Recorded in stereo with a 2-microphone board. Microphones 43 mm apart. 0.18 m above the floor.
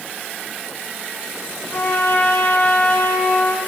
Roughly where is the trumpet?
Left.